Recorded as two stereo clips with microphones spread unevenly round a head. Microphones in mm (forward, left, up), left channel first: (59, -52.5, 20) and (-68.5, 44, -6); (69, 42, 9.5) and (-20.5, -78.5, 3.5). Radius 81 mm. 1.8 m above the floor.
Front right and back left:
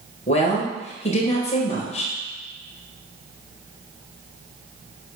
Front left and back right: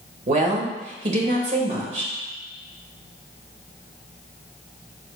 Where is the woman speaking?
85° right, 1.7 m.